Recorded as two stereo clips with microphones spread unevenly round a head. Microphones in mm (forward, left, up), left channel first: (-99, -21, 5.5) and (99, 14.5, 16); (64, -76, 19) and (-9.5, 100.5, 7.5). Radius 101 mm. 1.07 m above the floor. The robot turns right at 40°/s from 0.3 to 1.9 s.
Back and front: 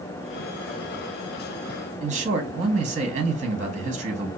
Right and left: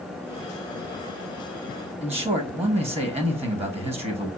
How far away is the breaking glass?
I don't hear breaking glass.